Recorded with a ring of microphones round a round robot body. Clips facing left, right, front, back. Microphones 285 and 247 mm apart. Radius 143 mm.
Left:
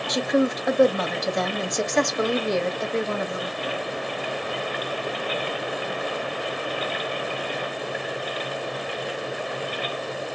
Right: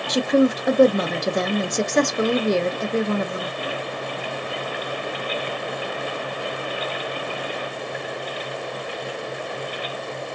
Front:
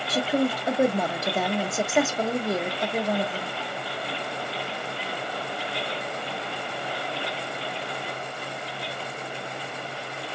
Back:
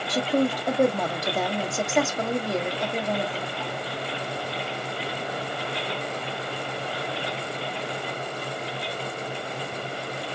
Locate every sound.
0.1 s a woman speaking: 80° right, 0.7 m